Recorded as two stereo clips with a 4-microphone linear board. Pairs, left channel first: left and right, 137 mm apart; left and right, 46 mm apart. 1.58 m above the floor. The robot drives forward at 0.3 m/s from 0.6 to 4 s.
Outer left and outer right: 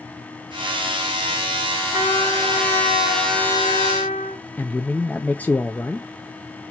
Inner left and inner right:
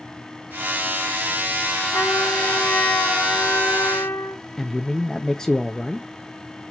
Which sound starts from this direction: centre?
A man speaking, at 4.6 s.